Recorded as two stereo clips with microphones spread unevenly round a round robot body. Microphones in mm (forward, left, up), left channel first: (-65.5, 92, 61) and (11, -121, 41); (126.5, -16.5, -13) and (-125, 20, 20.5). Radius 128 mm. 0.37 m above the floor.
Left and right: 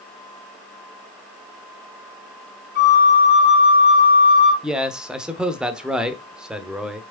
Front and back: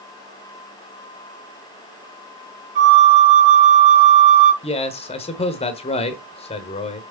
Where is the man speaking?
5° left, 1.0 m.